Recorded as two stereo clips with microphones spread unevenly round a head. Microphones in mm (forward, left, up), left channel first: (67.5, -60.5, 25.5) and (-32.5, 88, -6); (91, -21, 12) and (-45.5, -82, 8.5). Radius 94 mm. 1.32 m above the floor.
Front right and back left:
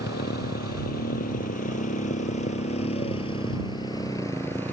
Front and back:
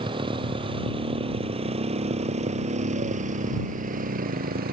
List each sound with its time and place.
0.0 s a motorcycle: 100° right; by 4.7 s 135° right